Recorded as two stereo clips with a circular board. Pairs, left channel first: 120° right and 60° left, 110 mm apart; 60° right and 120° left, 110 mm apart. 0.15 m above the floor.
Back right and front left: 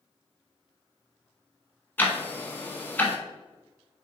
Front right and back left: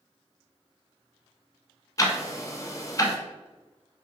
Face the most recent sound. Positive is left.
turn(degrees=-70)